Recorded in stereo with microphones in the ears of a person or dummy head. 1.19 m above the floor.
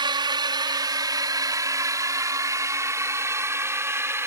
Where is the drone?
25° right (ahead or behind); by 4.3 s 15° right (ahead or behind).